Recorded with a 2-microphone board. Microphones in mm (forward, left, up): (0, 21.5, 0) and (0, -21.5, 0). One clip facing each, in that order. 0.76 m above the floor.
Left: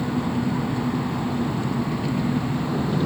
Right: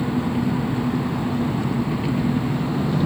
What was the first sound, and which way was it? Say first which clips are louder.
An engine running: right 2 dB; 20° right (ahead or behind).